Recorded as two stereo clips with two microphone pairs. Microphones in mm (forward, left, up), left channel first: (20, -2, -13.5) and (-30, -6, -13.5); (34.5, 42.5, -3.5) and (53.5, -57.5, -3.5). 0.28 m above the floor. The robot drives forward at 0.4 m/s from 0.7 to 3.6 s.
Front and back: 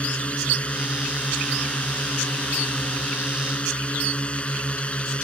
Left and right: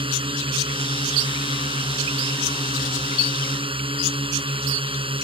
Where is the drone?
60° right.